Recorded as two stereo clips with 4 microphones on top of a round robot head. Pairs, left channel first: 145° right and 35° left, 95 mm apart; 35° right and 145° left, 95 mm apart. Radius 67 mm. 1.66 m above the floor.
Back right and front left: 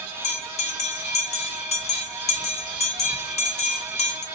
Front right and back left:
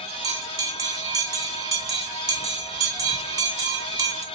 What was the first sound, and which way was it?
A bell, 160° right.